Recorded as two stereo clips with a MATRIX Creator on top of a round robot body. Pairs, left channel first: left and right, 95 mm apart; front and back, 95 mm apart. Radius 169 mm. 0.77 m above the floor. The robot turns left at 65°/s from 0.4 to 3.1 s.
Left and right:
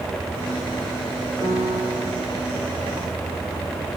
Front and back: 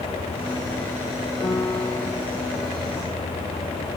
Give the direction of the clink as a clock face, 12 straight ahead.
I don't hear a clink.